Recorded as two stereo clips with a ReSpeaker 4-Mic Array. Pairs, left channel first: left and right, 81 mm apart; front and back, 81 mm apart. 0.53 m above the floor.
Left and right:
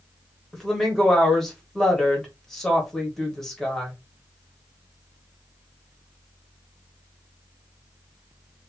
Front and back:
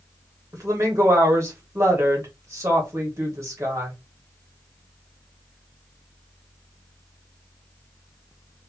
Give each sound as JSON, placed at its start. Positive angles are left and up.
{"t": 0.5, "sound": "a woman speaking", "azimuth_deg": 170, "distance_m": 1.5}